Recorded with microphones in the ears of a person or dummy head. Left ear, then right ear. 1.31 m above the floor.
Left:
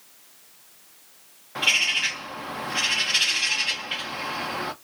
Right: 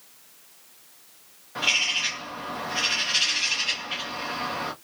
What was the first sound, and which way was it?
A bird, 15° left (ahead or behind).